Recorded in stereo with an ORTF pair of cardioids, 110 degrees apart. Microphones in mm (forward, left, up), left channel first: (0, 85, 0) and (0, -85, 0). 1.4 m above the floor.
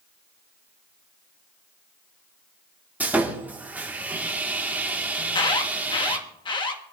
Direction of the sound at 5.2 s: 30° left.